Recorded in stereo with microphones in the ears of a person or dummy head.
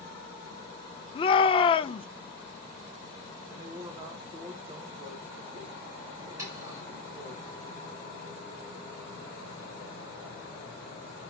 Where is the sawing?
15° right (ahead or behind), 6.5 m.